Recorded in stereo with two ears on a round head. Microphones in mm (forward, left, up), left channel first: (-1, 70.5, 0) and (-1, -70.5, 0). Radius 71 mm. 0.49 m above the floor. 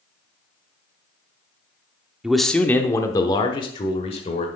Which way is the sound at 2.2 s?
5° right (ahead or behind).